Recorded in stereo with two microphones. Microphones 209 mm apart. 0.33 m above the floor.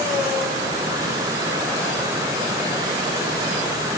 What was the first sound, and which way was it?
Only background noise.